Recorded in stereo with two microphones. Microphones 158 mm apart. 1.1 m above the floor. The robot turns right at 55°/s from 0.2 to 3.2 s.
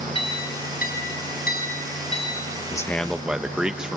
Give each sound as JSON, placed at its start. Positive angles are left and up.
{"t": 0.1, "sound": "a clink", "azimuth_deg": 35, "distance_m": 5.0}
{"t": 2.7, "sound": "a man speaking", "side_deg": 20, "distance_m": 0.8}